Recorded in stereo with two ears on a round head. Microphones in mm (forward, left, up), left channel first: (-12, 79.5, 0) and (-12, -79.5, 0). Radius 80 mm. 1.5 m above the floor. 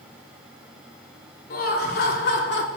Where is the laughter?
50° left (ahead or behind), 4 m; by 2.7 s 65° left (ahead or behind), 3.5 m.